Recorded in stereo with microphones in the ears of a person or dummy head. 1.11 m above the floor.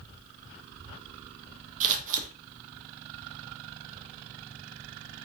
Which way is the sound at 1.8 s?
40° right (ahead or behind).